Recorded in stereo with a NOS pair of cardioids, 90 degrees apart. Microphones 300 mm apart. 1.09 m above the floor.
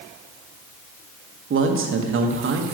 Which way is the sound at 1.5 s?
45° right.